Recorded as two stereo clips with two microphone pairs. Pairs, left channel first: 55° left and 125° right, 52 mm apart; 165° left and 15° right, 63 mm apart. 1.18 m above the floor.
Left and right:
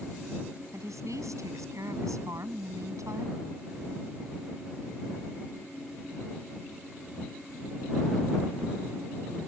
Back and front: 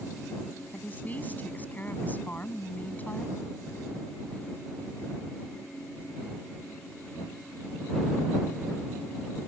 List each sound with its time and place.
0.7 s a woman speaking: 130° right